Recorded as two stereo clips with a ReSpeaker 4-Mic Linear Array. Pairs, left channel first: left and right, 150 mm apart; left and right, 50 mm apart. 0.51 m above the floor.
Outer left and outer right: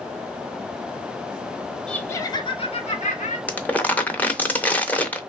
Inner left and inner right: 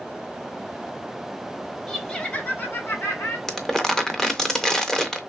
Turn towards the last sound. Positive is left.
turn(degrees=10)  # may be behind; listen again after turning